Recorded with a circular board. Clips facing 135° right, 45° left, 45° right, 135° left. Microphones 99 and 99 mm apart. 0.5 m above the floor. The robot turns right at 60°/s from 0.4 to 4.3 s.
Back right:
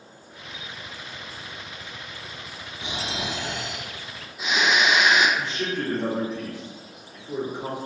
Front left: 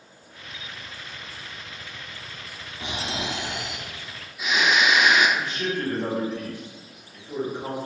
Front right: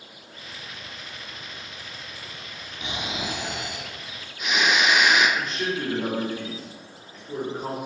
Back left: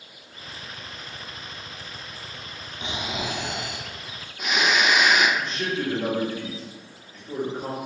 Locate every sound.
2.8 s snoring: 80° left, 0.6 m; by 5.3 s 170° left, 0.6 m
5.4 s a man speaking: 130° right, 0.8 m